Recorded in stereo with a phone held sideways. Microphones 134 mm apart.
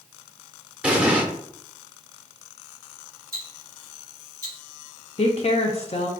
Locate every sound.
0.8 s an explosion: 10° right (ahead or behind), 0.6 m
3.3 s ticking: 25° right (ahead or behind), 2 m
5.2 s a woman speaking: 50° left (ahead or behind), 0.5 m